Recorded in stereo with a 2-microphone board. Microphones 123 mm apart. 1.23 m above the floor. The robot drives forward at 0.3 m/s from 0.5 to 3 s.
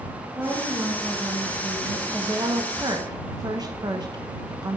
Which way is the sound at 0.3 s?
10° right (ahead or behind).